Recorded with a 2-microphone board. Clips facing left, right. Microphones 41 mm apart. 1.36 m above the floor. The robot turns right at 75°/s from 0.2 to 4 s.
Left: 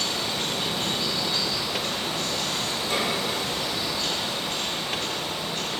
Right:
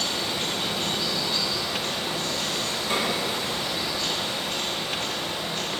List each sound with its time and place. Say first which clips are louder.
0.0 s running water: even; 30° right, 1.9 m; by 5.8 s 105° right, 1.9 m
2.9 s a snare drum: right 1 dB; 55° right (ahead or behind), 1.7 m; by 3.1 s 40° right (ahead or behind), 1.7 m